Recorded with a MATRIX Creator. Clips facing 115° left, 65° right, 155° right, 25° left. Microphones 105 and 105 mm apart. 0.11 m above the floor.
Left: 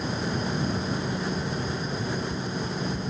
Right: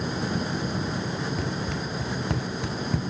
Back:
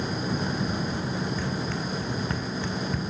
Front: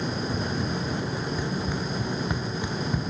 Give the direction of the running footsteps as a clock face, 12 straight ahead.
2 o'clock.